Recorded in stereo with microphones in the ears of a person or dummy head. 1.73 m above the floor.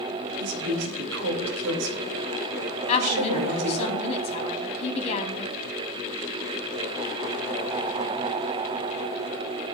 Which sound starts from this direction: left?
A woman speaking, at 2.9 s.